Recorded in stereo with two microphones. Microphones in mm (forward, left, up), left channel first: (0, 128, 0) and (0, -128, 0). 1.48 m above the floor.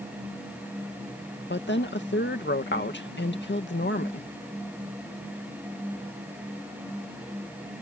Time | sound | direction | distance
1.5 | a woman speaking | 50° left (ahead or behind) | ?